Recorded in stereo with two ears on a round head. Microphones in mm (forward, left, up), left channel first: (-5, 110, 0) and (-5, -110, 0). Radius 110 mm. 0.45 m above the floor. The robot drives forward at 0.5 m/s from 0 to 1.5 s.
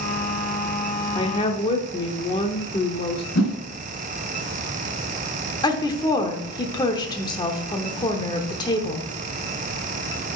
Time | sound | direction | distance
1.1 | a woman speaking | 20° left (ahead or behind) | 0.9 m
3.4 | a whoosh | 60° left (ahead or behind) | 2 m
5.6 | a woman speaking | 15° left (ahead or behind) | 0.9 m